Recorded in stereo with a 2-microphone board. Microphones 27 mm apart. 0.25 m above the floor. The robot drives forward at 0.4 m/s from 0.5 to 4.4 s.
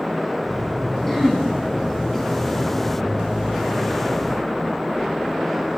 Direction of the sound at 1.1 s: 5° left (ahead or behind).